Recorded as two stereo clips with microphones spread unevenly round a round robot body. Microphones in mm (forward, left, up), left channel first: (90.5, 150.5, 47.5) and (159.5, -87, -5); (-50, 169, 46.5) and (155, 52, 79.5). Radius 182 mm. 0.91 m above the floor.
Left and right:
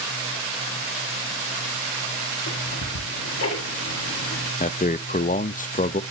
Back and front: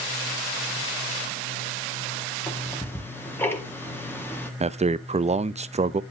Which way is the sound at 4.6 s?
40° left.